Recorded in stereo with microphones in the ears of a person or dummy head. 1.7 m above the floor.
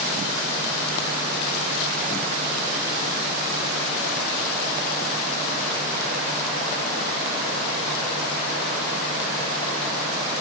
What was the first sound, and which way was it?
Only background noise.